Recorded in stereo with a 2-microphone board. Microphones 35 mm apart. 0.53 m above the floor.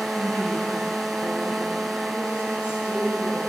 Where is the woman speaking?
70° left (ahead or behind), 4 m; by 3.4 s 80° left, 5.5 m.